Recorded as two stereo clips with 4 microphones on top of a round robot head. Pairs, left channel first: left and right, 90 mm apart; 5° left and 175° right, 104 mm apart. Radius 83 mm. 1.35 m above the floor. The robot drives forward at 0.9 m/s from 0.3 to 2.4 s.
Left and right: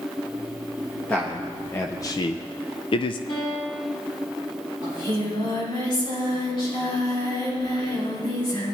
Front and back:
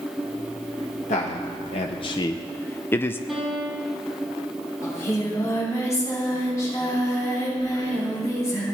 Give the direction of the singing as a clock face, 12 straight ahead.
10 o'clock.